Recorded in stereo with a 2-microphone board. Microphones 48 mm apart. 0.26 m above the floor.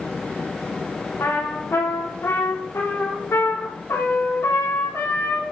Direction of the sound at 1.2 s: 85° left.